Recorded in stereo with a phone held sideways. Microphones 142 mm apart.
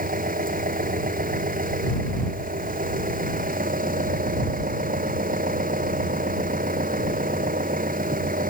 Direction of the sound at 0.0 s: 80° right.